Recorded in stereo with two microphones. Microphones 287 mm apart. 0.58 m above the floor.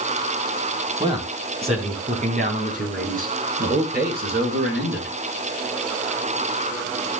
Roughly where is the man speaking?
Centre.